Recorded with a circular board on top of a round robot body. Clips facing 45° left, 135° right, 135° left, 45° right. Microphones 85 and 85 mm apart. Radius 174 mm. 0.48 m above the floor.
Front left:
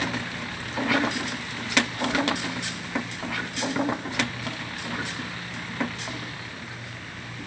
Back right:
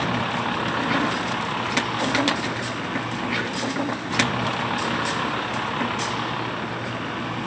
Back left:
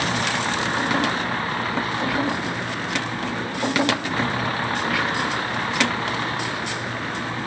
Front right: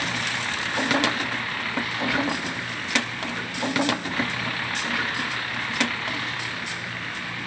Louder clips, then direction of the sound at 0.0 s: Back right 7 dB, back left 5 dB; 165° right.